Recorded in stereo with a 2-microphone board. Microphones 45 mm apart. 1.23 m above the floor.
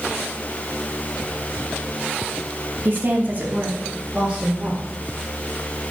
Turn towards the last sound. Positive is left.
turn(degrees=-20)  # may be behind; listen again after turning